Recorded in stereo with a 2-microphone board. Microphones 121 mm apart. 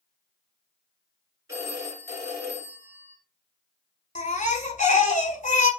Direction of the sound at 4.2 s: 80° left.